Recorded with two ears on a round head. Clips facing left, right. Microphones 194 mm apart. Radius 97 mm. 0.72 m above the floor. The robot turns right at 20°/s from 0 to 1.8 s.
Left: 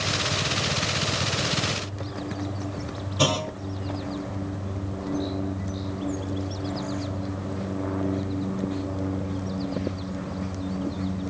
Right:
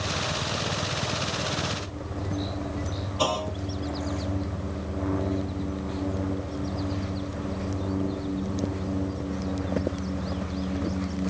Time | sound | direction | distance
3.2 | a clunk | 25° left (ahead or behind) | 0.8 m